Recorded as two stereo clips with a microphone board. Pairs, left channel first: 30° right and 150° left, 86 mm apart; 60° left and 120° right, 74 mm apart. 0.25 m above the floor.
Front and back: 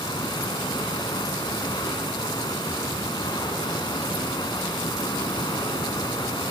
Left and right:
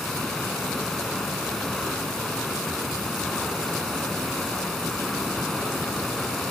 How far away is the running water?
About 1.7 m.